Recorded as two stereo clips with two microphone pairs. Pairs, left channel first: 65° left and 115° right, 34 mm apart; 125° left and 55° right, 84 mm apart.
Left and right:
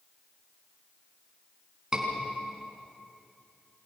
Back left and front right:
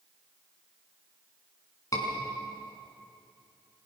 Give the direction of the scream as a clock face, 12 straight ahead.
6 o'clock.